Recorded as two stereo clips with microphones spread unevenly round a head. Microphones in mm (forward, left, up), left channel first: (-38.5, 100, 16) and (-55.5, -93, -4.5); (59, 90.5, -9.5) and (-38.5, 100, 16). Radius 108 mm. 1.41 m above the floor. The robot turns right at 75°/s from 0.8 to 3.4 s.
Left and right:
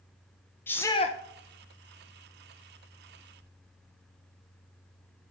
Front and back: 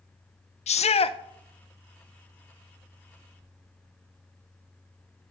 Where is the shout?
5° left, 0.7 m; by 1.2 s 35° left, 0.7 m.